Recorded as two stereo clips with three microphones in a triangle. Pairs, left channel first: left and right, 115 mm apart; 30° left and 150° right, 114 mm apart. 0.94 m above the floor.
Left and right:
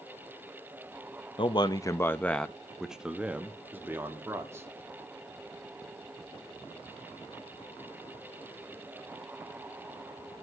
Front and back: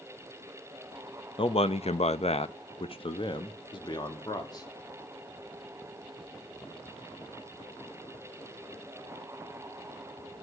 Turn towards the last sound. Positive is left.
turn(degrees=-25)